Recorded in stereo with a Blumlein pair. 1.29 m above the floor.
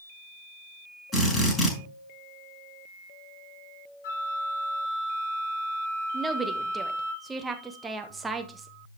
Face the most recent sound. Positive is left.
turn(degrees=-15)